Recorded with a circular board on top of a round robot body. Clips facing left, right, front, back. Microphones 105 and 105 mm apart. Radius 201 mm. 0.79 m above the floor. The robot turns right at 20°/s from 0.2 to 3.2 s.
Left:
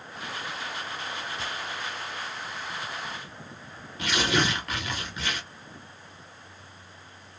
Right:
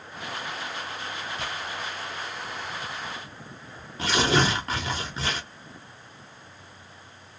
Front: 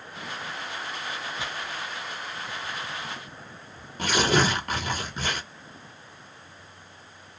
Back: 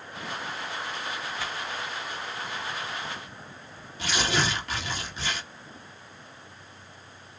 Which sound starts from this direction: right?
Tearing paper, at 1.4 s.